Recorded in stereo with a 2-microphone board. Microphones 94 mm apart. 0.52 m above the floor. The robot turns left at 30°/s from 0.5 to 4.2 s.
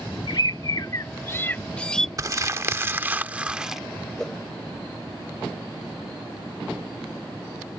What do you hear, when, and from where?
0.3 s a bird: 50° left; by 2.1 s 5° left
2.2 s crumpling: 125° right; by 3.8 s 175° right
4.2 s a whoosh: 5° left (ahead or behind)